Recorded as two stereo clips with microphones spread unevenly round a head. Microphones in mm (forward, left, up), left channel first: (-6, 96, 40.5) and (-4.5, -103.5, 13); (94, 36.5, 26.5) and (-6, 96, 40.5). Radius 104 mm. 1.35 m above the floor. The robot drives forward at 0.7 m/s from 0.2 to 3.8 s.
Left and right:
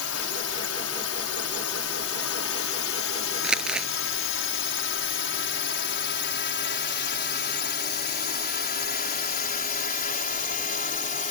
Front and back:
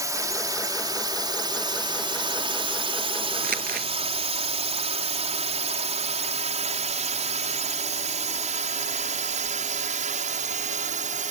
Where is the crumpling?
175° right.